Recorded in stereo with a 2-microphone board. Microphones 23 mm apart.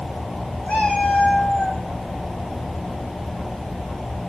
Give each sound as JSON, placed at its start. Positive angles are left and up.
{"t": 0.7, "sound": "a cat meowing", "side_deg": 85, "distance_m": 1.4}